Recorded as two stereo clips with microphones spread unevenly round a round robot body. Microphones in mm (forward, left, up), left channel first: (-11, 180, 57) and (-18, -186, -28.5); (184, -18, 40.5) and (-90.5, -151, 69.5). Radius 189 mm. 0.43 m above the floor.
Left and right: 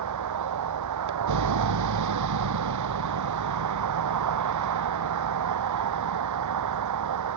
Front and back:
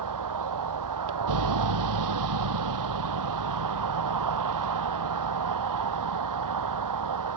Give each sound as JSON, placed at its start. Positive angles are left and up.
{"t": 0.0, "sound": "a vehicle", "azimuth_deg": -135}